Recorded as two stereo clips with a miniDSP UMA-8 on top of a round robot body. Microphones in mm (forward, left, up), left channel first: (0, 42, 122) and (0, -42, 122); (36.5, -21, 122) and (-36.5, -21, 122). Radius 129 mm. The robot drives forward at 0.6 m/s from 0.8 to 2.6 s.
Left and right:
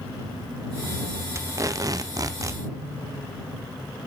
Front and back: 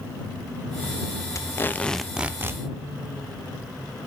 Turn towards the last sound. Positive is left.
turn(degrees=-135)